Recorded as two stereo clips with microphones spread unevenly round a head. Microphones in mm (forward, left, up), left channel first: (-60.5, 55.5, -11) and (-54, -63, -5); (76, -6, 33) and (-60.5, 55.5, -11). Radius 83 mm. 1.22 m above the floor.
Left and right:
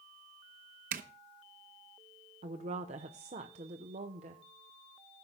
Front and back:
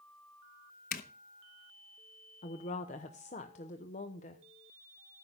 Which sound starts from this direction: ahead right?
A zipper, at 0.9 s.